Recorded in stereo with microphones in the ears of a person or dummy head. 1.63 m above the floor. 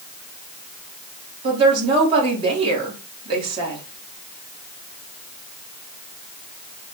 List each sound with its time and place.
1.4 s a woman speaking: 30° right (ahead or behind), 2 m